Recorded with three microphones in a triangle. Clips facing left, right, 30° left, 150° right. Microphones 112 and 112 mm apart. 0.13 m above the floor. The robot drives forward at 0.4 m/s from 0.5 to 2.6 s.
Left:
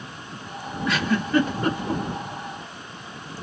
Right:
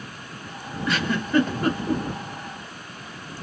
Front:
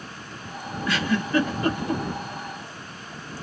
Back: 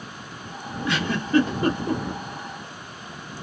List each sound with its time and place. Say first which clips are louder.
0.8 s a giggle: left 2 dB, even; straight behind, 1.2 m